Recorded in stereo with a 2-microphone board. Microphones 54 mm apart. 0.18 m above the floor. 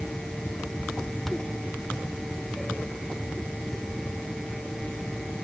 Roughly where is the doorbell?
I don't hear a doorbell.